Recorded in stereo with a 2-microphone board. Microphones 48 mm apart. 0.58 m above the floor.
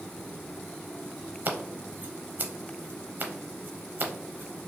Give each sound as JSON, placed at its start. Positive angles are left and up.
{"t": 1.4, "sound": "scissors", "side_deg": -35, "distance_m": 0.6}